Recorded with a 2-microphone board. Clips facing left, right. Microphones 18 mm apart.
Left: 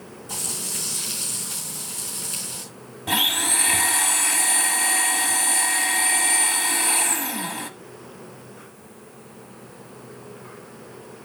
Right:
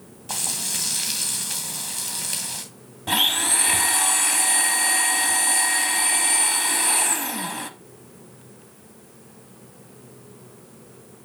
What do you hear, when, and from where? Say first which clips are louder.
0.3 s frying: right 3 dB; 60° right (ahead or behind), 2.5 m
3.1 s a blender: right 1 dB; 5° right (ahead or behind), 0.7 m